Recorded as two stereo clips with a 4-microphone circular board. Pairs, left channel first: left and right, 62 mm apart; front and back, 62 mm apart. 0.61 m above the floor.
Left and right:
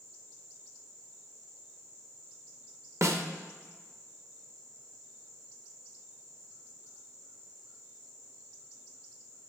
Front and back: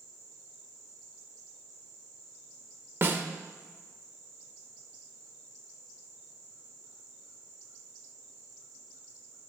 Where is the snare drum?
125° right, 0.7 m.